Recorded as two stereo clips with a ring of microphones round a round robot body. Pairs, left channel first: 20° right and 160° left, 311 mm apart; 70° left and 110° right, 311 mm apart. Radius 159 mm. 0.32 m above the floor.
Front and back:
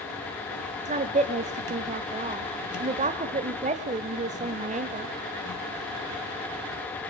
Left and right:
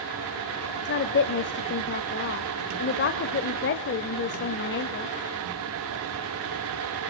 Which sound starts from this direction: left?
A woman speaking, at 0.8 s.